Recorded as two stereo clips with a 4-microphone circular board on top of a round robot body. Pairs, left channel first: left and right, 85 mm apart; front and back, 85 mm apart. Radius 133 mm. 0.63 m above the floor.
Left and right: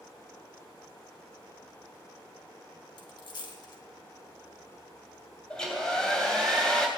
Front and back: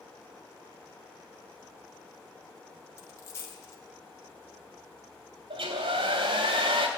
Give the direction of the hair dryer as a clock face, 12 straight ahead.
6 o'clock.